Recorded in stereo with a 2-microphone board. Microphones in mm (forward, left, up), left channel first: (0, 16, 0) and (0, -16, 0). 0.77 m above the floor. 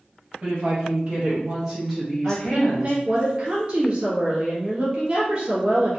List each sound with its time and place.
0.4 s a woman speaking: 35° right (ahead or behind), 1.5 m; by 3.0 s 50° left (ahead or behind), 0.9 m
2.2 s a woman speaking: 25° right (ahead or behind), 1.2 m